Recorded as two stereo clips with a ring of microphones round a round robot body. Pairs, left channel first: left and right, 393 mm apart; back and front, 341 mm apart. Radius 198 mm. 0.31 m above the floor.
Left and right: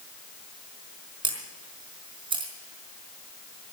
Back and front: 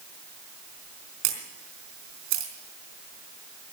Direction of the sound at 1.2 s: 10° right.